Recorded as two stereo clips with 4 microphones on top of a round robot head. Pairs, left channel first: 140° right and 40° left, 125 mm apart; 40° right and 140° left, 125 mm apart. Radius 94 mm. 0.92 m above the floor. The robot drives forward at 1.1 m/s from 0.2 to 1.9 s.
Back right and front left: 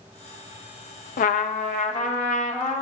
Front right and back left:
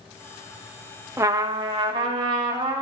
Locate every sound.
1.2 s a trumpet: 150° right, 0.5 m; by 2.8 s 165° right, 1.3 m